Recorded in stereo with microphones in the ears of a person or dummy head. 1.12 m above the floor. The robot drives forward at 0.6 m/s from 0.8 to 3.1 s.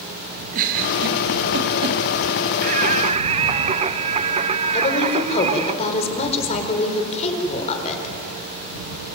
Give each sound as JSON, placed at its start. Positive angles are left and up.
{"t": 0.5, "sound": "a giggle", "side_deg": -50, "distance_m": 2.5}
{"t": 2.6, "sound": "singing", "side_deg": -45, "distance_m": 0.6}
{"t": 4.7, "sound": "a woman speaking", "side_deg": 40, "distance_m": 4.5}